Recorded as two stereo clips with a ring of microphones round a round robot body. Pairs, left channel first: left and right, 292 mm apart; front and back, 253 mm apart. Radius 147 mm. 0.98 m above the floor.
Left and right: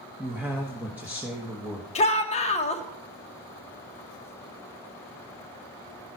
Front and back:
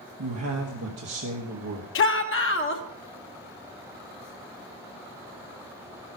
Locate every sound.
0.2 s a man speaking: 175° right, 1.2 m
1.9 s a shout: 25° left, 1.3 m